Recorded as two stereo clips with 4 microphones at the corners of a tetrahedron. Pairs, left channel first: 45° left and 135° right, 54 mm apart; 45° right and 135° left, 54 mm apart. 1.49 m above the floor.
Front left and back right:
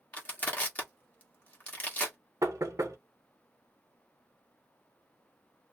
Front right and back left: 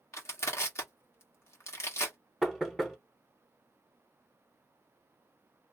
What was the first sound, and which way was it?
Crushing, 15° right.